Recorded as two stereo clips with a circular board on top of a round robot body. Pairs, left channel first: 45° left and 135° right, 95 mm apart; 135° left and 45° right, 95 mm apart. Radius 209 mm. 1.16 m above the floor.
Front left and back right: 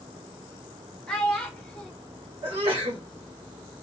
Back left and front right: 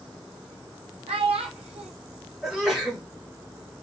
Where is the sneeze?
130° right, 2 m.